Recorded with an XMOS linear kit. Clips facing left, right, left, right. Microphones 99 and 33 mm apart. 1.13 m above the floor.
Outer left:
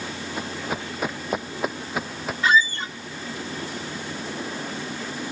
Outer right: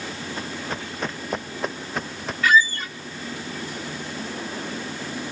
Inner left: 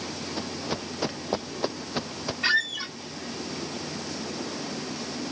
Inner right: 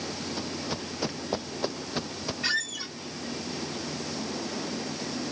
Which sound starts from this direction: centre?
Running footsteps, at 0.4 s.